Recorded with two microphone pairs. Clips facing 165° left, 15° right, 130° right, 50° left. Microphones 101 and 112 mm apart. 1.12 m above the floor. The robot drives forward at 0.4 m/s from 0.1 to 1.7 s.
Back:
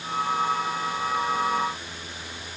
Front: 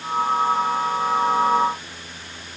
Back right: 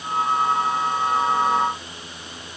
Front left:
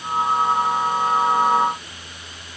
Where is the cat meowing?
I don't hear a cat meowing.